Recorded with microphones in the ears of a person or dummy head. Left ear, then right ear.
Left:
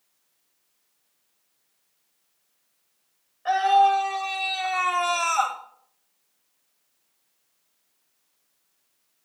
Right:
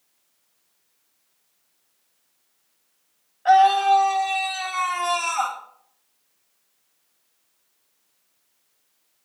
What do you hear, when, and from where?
3.5 s a scream: 5° left (ahead or behind), 2.5 m; by 5.6 s 60° left (ahead or behind), 2 m